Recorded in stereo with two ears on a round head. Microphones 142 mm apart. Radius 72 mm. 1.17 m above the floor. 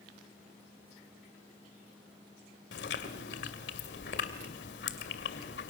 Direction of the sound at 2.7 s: 75° left (ahead or behind).